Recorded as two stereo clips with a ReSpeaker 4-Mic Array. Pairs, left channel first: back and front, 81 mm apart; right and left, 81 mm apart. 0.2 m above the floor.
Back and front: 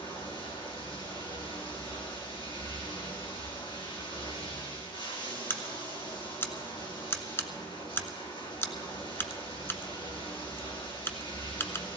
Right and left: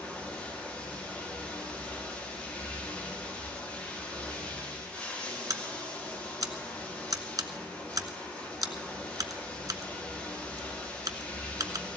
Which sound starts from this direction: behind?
Running water, at 0.0 s.